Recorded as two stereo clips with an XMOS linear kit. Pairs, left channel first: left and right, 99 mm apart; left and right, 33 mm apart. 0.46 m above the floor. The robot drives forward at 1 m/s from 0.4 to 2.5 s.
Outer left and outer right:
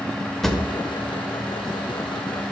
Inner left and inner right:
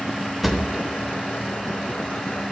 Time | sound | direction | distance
0.4 | a drawer | 5° left (ahead or behind) | 0.8 m